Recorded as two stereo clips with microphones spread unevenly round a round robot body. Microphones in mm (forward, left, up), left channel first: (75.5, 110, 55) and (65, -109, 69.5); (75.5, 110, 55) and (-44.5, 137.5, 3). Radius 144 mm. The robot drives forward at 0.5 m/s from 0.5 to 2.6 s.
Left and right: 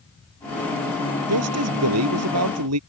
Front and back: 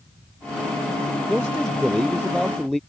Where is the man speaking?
100° right.